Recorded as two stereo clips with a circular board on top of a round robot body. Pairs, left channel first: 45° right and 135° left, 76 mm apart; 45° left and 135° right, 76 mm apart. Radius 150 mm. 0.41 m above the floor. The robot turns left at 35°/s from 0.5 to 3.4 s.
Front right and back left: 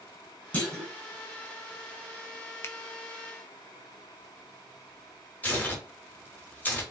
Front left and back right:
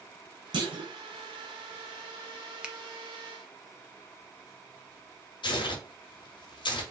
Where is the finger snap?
70° right, 0.6 m.